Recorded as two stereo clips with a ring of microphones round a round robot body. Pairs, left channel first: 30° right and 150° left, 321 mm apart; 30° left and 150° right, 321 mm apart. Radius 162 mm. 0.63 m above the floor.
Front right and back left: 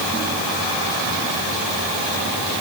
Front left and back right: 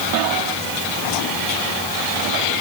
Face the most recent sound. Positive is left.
No sound to turn to.